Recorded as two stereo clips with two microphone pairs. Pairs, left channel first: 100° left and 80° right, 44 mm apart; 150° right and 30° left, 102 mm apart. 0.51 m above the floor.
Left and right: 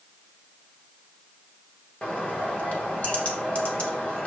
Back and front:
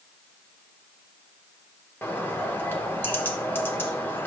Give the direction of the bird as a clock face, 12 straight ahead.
7 o'clock.